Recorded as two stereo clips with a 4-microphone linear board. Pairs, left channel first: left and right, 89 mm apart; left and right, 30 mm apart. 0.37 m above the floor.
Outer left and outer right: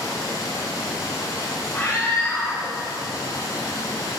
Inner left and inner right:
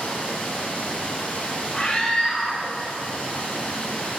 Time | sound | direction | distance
0.0 | running water | 40° left (ahead or behind) | 4 m
1.7 | a scream | 25° left (ahead or behind) | 4.5 m